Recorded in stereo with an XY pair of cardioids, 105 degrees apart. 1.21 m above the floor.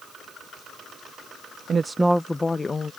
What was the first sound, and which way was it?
A woman speaking, 45° right.